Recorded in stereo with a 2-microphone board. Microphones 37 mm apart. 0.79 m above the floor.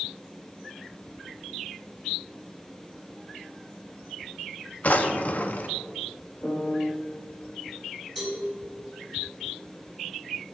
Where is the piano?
50° left (ahead or behind), 3 m.